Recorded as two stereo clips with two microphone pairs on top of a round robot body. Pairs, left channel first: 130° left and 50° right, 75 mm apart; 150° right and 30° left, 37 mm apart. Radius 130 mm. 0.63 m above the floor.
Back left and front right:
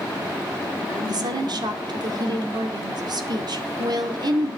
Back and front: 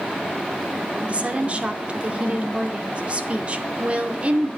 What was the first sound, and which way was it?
A woman speaking, 25° right.